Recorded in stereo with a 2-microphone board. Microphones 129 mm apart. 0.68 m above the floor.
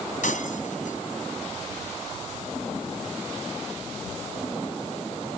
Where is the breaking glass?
85° left.